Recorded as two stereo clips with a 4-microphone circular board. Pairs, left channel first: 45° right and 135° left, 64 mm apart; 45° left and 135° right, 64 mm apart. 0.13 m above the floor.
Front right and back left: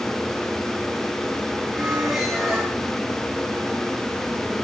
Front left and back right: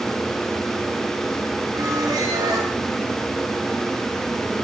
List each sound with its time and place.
1.7 s a squeak: 145° right, 5.5 m